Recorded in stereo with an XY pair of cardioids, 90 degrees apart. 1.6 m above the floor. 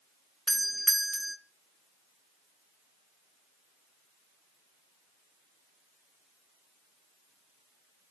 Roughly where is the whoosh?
No whoosh in this recording.